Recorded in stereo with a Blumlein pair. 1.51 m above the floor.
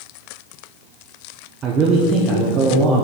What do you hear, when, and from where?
1.6 s a man speaking: 25° right, 0.9 m